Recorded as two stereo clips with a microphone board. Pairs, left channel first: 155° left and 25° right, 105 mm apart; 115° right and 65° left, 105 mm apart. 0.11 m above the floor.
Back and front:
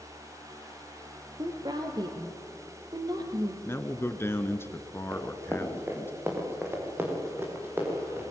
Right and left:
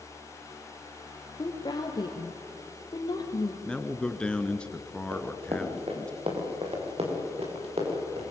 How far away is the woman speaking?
About 3.5 m.